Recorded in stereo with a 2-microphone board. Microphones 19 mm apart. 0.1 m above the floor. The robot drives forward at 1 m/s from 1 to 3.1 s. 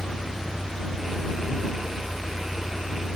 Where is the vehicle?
70° left (ahead or behind); by 3.2 s 60° left (ahead or behind).